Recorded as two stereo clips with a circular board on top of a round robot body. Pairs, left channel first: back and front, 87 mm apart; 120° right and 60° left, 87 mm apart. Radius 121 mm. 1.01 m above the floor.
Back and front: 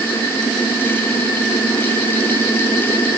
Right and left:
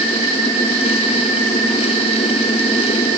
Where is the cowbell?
No cowbell in this recording.